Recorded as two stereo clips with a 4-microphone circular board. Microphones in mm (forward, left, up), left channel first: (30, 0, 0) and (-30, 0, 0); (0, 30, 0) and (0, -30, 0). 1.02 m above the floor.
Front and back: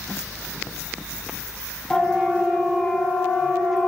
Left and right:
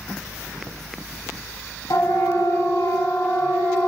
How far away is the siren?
About 7.5 m.